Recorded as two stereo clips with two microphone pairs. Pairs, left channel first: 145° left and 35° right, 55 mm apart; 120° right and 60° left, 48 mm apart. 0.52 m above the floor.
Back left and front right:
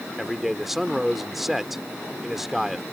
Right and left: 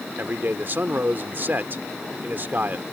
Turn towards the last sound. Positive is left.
turn(degrees=50)